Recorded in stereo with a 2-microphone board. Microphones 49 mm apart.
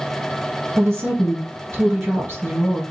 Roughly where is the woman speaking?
Right.